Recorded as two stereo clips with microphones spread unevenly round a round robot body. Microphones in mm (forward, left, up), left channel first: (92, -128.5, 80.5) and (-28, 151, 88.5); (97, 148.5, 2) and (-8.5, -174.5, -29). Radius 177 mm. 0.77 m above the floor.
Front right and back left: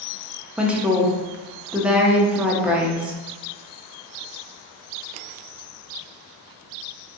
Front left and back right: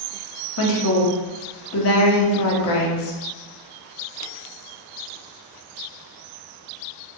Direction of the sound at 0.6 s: 25° left.